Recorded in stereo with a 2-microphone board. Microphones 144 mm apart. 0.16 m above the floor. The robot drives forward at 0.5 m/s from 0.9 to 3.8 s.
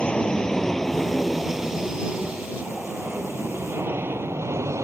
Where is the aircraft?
5° left (ahead or behind); by 4.8 s 20° right (ahead or behind).